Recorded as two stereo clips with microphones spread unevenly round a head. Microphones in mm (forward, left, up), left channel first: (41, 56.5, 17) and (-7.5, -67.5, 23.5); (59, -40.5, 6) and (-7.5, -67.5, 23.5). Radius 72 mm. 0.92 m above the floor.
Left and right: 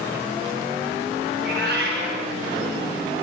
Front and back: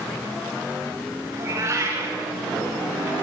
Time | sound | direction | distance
1.3 | a cat meowing | 115° right | 6 m